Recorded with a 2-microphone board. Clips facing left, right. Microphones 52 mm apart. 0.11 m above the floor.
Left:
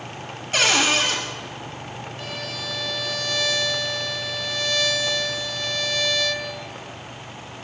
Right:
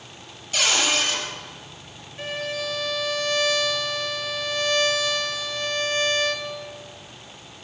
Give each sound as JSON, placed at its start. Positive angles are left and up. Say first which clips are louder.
{"t": 0.5, "sound": "a cupboard door", "louder": "left 3 dB", "side_deg": 40, "distance_m": 1.5}
{"t": 2.2, "sound": "a violin", "louder": "right 7 dB", "side_deg": -30, "distance_m": 0.6}